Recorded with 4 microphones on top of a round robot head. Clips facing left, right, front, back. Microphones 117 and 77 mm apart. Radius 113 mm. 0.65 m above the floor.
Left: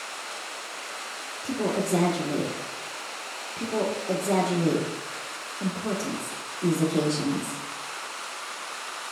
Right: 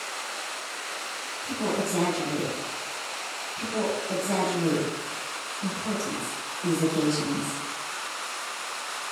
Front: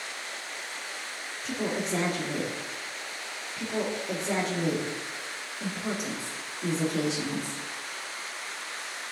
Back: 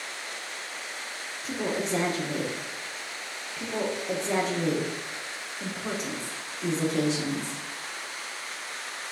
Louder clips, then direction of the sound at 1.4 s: Left 2 dB, back 1 dB; 85° left.